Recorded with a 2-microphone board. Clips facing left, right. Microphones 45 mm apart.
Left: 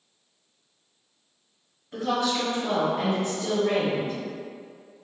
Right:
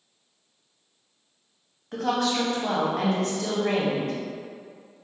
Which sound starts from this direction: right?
A woman speaking, at 1.9 s.